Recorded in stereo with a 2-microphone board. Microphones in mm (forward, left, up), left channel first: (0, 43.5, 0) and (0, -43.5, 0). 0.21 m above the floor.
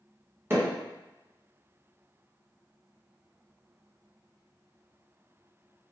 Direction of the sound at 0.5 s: 30° right (ahead or behind).